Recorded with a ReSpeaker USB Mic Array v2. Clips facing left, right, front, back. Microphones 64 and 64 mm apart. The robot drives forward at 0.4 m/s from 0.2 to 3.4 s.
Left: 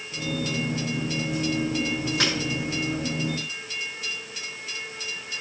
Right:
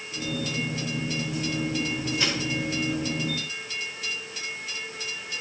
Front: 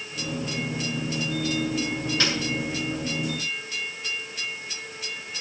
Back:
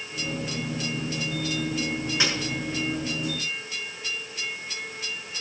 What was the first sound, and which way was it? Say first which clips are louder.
A snare drum: left 2 dB, even; 105° left.